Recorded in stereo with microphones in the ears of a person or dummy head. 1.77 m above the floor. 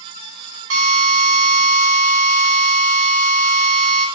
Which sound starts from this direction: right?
A drill, at 0.7 s.